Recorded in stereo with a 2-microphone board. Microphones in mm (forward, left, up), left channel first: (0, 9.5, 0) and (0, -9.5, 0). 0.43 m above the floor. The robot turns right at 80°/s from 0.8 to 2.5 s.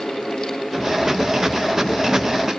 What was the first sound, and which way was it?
Only background noise.